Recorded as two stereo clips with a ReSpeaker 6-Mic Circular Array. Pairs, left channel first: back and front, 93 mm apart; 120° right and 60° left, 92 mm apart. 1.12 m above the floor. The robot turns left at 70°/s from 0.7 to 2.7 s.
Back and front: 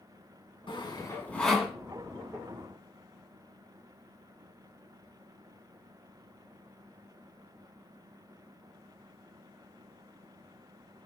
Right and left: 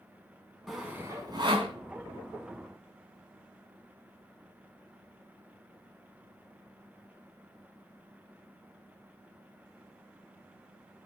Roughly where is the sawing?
Behind left.